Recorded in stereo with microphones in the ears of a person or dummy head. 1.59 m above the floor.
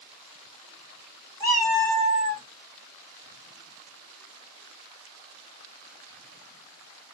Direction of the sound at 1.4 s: 15° left (ahead or behind).